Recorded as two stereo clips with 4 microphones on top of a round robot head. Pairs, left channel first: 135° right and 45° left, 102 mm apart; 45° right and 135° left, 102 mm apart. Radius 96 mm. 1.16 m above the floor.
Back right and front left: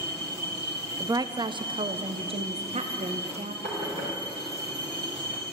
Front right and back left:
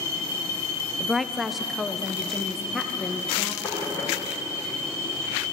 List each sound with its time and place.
1.0 s a woman speaking: 50° left, 0.6 m; by 3.5 s 45° left, 1.7 m
3.6 s knocking: 30° left, 5 m